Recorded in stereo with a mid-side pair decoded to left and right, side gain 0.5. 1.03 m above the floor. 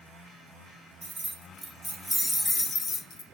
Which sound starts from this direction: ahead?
Keys jangling, at 1.0 s.